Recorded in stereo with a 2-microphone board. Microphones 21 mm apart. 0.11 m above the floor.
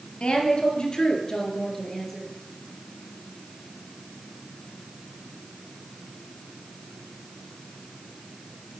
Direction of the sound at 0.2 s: 55° left (ahead or behind).